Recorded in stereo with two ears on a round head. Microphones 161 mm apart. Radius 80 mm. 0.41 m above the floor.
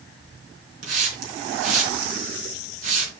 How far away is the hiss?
About 4 m.